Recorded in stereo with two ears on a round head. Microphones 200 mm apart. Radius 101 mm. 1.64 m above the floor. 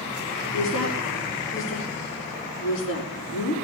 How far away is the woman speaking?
About 4 m.